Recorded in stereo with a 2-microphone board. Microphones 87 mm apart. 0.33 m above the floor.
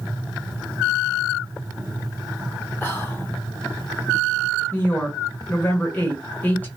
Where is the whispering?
30° left (ahead or behind), 1.8 m.